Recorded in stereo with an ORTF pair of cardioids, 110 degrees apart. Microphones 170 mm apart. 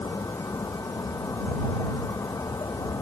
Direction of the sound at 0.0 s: 20° left.